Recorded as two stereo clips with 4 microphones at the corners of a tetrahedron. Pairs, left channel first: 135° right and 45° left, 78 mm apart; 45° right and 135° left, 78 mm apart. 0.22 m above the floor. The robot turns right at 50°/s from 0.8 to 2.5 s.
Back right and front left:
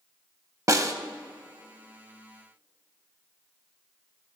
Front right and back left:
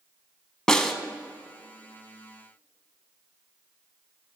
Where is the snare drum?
35° left, 0.5 m; by 0.9 s 40° left, 0.5 m.